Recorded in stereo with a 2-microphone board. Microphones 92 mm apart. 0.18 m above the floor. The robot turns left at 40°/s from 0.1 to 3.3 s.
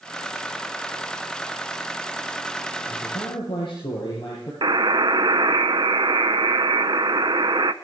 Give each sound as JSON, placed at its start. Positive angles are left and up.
{"t": 2.9, "sound": "a man speaking", "side_deg": 45, "distance_m": 6.5}
{"t": 4.6, "sound": "a buzzer", "side_deg": -55, "distance_m": 0.6}